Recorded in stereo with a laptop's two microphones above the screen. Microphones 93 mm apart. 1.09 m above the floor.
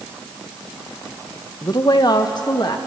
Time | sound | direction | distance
1.6 | a woman speaking | 45° left (ahead or behind) | 0.9 m